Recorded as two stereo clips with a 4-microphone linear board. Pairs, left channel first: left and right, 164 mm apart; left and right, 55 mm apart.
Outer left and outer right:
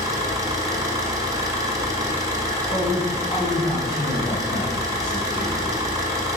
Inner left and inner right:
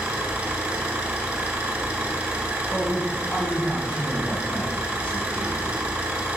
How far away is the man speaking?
About 1.6 m.